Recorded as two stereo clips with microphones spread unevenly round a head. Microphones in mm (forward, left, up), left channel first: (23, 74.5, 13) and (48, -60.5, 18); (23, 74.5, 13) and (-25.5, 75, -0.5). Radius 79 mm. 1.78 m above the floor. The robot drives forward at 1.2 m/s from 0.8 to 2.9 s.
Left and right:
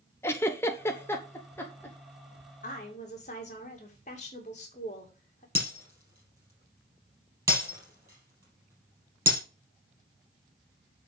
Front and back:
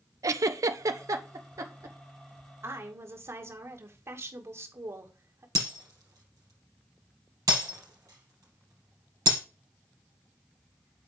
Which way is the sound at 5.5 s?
150° right.